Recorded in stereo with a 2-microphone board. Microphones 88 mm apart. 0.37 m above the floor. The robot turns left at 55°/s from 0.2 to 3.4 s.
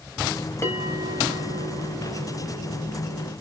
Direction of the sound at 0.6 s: 145° left.